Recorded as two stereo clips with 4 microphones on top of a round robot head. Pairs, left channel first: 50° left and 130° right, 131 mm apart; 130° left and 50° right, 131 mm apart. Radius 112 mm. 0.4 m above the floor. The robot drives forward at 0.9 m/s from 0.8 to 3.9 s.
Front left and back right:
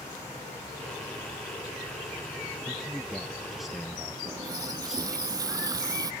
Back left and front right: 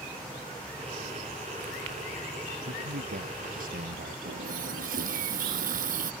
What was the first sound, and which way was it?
A man speaking, 40° right.